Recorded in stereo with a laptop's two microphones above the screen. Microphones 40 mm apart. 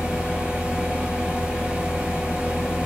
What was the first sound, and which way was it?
A fan, 25° right (ahead or behind).